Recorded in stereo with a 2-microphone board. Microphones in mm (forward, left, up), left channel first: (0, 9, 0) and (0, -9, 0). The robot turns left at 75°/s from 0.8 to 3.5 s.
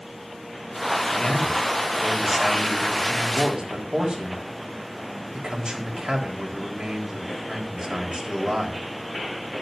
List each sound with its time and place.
1.1 s a man speaking: 70° left, 4 m; by 8.8 s 110° right, 4 m